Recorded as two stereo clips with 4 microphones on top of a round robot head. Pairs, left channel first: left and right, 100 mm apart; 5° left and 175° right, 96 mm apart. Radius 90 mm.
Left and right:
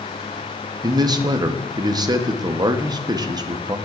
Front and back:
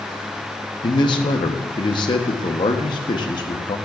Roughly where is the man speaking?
Ahead right.